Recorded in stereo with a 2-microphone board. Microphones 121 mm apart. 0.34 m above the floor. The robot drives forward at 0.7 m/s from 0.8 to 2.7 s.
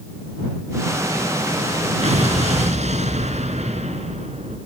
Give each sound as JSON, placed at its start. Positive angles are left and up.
{"t": 2.0, "sound": "an explosion", "side_deg": -70, "distance_m": 3.5}